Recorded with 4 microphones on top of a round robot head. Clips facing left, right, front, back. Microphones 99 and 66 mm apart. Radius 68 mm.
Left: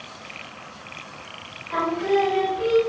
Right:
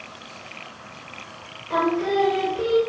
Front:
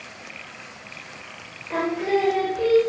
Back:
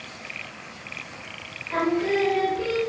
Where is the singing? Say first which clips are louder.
Even, even; 50° right, 2.5 m.